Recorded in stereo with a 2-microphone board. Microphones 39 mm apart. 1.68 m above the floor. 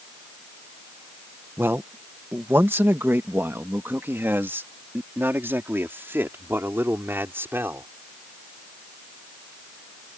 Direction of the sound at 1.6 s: 85° right.